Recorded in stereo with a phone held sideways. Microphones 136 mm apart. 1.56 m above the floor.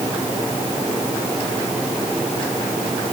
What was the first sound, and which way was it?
Only background noise.